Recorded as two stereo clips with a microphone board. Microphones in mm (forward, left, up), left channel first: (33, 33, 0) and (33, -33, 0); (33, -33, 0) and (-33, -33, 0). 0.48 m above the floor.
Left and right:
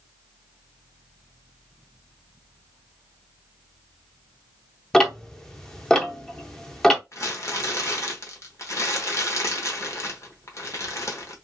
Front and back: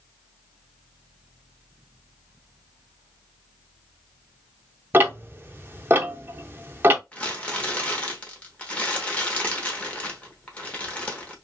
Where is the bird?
I don't hear a bird.